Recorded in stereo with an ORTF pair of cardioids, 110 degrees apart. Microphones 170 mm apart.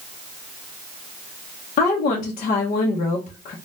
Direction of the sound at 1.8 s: 50° left.